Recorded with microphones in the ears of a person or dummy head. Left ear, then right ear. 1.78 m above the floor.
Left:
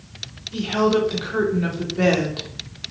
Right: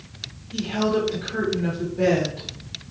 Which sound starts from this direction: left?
A woman speaking, at 0.5 s.